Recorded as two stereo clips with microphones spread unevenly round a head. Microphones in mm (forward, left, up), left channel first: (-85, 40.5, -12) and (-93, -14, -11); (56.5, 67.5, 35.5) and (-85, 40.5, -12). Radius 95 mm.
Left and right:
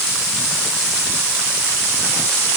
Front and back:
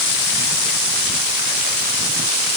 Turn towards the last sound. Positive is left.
No sound to turn to.